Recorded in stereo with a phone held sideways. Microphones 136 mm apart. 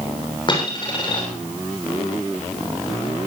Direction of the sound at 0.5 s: 40° left (ahead or behind).